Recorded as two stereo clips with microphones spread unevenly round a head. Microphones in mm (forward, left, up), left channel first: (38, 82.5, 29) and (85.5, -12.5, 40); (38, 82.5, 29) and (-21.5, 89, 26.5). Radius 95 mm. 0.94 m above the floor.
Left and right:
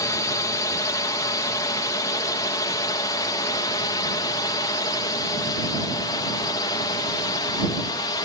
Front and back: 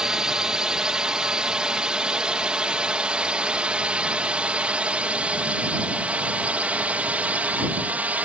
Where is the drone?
105° left; by 8.3 s 125° left.